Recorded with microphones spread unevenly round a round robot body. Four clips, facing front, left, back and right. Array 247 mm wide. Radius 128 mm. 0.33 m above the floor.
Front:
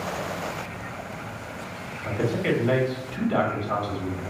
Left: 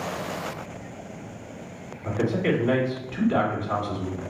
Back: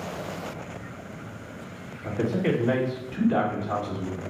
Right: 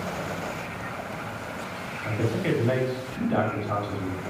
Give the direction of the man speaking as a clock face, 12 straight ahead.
5 o'clock.